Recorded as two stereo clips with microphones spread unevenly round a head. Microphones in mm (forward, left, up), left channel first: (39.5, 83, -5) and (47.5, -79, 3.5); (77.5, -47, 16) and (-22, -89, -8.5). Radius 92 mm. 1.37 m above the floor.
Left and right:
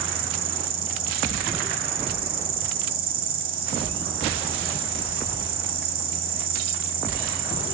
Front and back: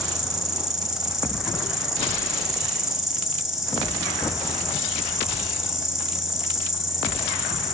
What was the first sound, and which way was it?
An insect, 70° right.